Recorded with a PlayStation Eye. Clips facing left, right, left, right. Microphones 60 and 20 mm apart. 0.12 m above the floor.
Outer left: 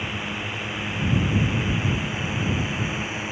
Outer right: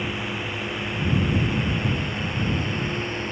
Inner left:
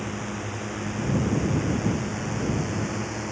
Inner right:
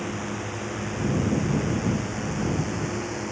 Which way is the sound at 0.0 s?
Centre (ahead or behind).